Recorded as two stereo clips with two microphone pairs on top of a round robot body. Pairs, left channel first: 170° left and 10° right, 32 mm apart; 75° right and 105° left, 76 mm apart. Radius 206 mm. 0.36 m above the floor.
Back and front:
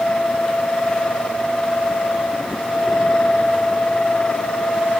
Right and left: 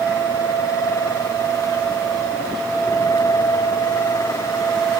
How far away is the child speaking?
I don't hear a child speaking.